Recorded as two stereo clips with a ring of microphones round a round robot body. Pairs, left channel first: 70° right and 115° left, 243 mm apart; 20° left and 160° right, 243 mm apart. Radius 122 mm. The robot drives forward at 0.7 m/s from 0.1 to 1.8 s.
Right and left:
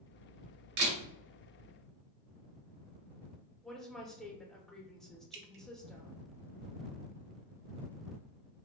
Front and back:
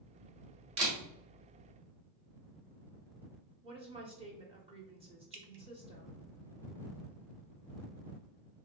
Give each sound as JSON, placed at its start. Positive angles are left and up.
{"t": 0.8, "sound": "a camera shutter", "azimuth_deg": 145, "distance_m": 1.3}
{"t": 3.6, "sound": "a woman speaking", "azimuth_deg": -155, "distance_m": 0.9}
{"t": 5.3, "sound": "dripping", "azimuth_deg": 160, "distance_m": 0.7}